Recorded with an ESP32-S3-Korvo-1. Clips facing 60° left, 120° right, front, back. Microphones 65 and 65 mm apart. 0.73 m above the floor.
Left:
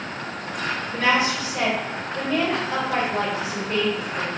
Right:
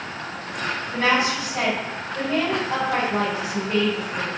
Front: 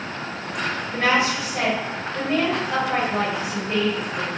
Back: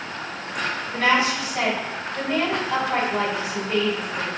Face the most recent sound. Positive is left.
turn(degrees=-70)